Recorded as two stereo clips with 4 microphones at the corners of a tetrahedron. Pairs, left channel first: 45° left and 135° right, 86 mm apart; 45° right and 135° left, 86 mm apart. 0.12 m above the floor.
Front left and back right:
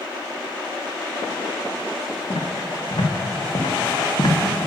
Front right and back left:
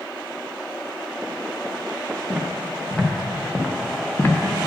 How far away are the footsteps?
About 2.5 m.